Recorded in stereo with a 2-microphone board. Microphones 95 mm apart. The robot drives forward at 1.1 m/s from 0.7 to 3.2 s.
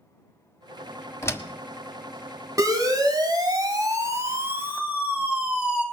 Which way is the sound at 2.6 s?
35° right (ahead or behind).